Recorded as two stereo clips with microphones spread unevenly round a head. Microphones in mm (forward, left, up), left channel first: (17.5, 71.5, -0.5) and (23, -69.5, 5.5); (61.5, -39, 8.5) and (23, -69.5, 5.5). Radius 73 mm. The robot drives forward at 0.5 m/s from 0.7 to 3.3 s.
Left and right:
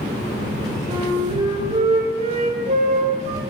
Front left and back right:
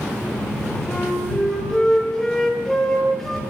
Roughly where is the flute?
Ahead right.